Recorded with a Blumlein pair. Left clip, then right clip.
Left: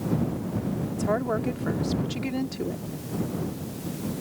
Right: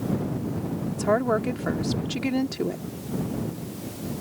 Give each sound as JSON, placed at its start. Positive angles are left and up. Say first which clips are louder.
{"t": 0.9, "sound": "a woman speaking", "louder": "right 4 dB", "azimuth_deg": -15}